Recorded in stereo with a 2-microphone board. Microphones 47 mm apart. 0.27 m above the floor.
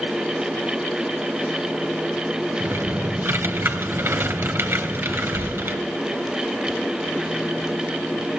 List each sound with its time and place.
2.6 s typing on a keyboard: 50° right (ahead or behind), 2.5 m